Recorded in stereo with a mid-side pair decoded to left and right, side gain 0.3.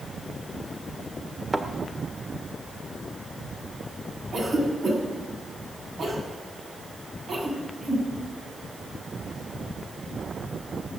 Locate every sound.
1.5 s a thud: 30° right, 1.7 m
4.3 s a cough: 70° right, 7 m